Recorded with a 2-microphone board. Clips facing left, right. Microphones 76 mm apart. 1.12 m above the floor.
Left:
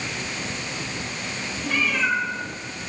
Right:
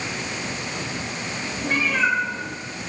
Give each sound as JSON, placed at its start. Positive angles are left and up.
{"t": 1.6, "sound": "a cat meowing", "side_deg": -45, "distance_m": 5.5}